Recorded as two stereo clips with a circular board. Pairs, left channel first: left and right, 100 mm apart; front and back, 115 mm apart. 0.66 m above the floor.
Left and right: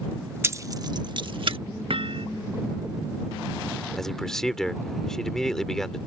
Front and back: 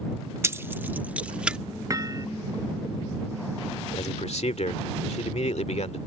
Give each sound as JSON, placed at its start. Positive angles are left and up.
{"t": 0.4, "sound": "keys jangling", "azimuth_deg": -130}
{"t": 1.9, "sound": "hammering", "azimuth_deg": -120}
{"t": 4.0, "sound": "a man speaking", "azimuth_deg": 5}